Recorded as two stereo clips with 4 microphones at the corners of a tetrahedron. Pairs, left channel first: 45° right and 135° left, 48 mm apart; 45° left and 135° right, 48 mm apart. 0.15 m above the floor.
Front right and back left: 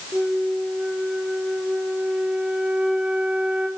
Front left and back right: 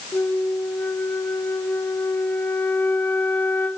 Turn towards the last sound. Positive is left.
turn(degrees=70)